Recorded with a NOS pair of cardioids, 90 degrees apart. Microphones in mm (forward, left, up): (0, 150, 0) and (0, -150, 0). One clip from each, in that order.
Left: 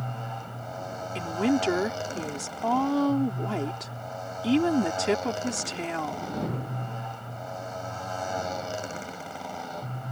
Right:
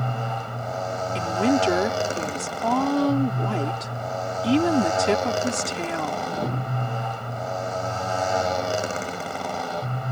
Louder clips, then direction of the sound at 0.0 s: Right 8 dB; 55° right.